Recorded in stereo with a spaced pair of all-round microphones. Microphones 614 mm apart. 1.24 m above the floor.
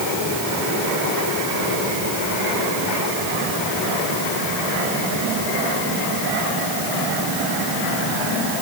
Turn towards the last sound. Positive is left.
No sound to turn to.